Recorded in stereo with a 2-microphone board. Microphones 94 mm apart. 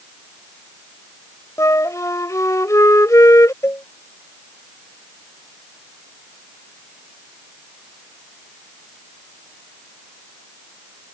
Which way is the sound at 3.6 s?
30° left (ahead or behind).